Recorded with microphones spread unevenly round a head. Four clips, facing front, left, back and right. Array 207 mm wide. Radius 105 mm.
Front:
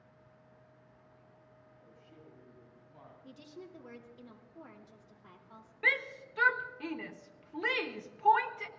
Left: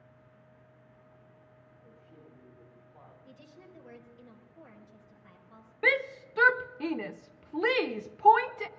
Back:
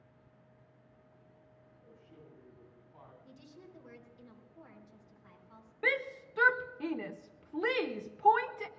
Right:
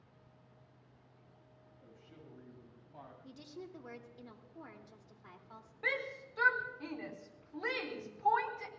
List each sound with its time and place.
1.8 s a man speaking: 70° right, 6 m; by 3.1 s 80° right, 7 m
3.2 s a woman speaking: 55° right, 3 m
5.8 s a shout: 90° left, 0.7 m